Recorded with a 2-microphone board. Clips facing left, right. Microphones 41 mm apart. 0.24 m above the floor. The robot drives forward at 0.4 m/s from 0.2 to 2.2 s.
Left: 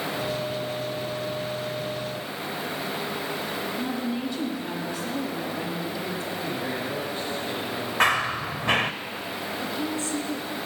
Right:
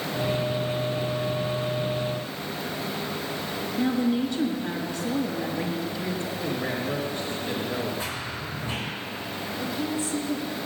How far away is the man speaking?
About 3 m.